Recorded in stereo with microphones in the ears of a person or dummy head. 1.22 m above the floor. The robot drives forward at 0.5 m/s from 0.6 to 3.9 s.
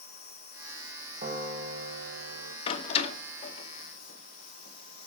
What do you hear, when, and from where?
0.0 s an insect: 40° left (ahead or behind), 8 m; by 5.1 s 50° left (ahead or behind), 6.5 m
1.2 s a piano: 45° right (ahead or behind), 3 m; by 2.6 s 55° right (ahead or behind), 2.5 m
2.7 s a door slam: 30° left (ahead or behind), 2.5 m; by 5.1 s 40° left (ahead or behind), 1.8 m